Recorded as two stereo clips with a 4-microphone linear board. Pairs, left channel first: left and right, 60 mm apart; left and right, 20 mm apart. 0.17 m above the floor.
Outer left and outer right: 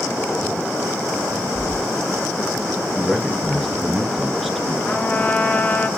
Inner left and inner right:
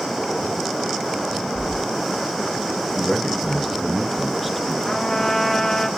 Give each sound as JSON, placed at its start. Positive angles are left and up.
{"t": 1.6, "sound": "keys jangling", "side_deg": 55, "distance_m": 4.5}
{"t": 3.0, "sound": "a man speaking", "side_deg": 5, "distance_m": 2.0}
{"t": 4.8, "sound": "a trumpet", "side_deg": 30, "distance_m": 1.9}